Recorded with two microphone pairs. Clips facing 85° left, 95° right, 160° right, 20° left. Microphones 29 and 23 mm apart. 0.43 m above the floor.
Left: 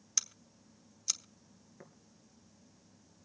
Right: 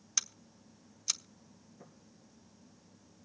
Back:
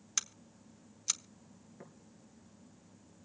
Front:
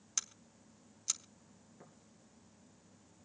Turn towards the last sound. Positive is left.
turn(degrees=130)